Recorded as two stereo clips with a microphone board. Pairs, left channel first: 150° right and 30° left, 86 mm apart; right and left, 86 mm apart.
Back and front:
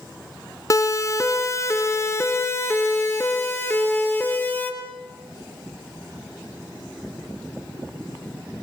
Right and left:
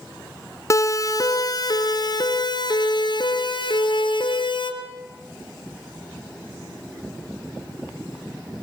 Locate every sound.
0.7 s a siren: 120° right, 2 m; by 4.7 s 85° right, 4.5 m